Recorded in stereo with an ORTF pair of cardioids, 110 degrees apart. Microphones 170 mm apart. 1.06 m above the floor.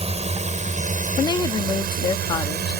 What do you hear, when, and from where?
0.0 s a drone: 40° right; by 2.8 s 75° right
1.2 s a woman speaking: 25° left